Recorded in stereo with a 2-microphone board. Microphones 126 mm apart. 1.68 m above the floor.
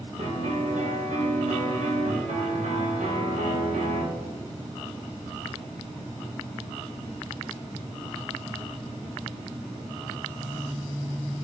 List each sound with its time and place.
0.2 s a piano: 80° right, 2.0 m